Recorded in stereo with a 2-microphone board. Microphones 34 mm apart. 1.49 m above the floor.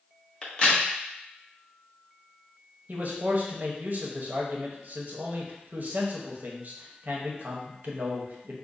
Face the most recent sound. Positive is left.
turn(degrees=-50)  # may be behind; listen again after turning